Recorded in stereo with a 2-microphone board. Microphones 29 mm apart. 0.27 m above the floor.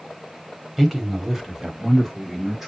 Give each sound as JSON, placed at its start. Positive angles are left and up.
{"t": 0.8, "sound": "a man speaking", "side_deg": -5, "distance_m": 1.6}